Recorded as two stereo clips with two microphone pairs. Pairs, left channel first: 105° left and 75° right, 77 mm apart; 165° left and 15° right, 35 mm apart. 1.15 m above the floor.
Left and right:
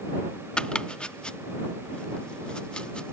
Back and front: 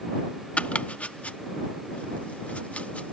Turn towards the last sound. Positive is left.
turn(degrees=180)